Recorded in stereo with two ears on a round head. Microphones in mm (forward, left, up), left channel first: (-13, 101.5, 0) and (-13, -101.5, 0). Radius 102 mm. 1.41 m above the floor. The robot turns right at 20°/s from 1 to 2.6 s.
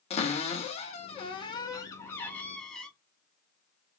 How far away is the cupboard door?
About 1.2 m.